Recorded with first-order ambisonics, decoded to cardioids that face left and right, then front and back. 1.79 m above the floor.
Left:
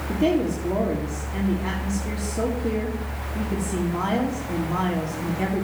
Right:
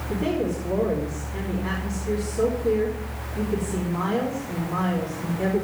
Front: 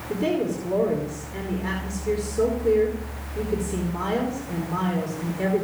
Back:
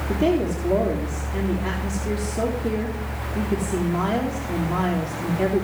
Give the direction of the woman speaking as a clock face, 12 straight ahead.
7 o'clock.